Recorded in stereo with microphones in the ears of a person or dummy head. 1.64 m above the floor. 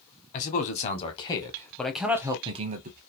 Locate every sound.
0.3 s a man speaking: 40° left (ahead or behind), 1.3 m; by 3.0 s 50° right (ahead or behind), 0.8 m